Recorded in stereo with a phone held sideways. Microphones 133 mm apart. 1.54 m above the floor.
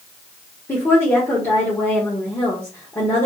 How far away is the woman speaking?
About 1.5 m.